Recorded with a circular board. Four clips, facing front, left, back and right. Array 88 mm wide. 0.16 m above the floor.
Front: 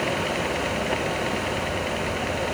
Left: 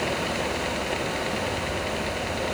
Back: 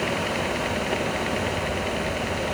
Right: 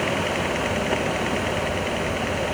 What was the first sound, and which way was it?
Only background noise.